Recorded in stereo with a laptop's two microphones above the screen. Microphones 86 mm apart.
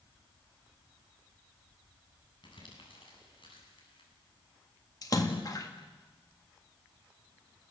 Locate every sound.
2.4 s crumpling: 70° left (ahead or behind), 8.5 m
5.0 s a splash: 45° left (ahead or behind), 1.9 m